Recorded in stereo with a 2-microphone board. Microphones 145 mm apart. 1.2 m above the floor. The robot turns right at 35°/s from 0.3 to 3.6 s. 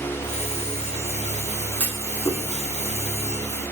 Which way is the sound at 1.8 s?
10° left (ahead or behind).